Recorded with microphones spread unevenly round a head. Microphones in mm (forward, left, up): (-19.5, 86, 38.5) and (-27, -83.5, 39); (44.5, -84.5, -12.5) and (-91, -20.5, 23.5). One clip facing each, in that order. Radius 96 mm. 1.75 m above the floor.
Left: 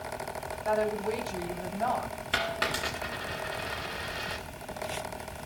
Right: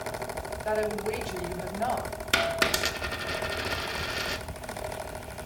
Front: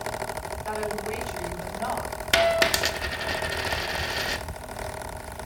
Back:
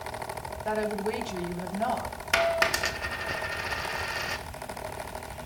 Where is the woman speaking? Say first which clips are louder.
Even, back 2 dB; 155° right, 6 m.